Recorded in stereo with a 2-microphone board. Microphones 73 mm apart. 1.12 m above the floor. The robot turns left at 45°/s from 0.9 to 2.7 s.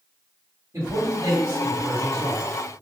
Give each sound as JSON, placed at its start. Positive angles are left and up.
{"t": 0.7, "sound": "a man speaking", "azimuth_deg": -60, "distance_m": 1.9}